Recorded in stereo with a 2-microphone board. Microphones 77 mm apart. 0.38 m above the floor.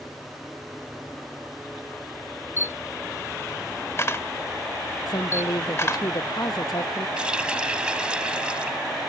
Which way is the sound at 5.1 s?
60° left (ahead or behind).